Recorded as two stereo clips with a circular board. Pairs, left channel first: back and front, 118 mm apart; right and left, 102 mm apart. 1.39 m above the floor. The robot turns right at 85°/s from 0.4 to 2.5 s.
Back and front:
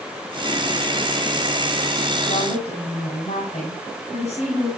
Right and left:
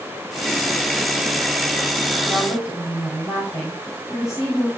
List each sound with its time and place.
2.3 s a woman speaking: 175° right, 6 m; by 4.7 s 150° right, 6 m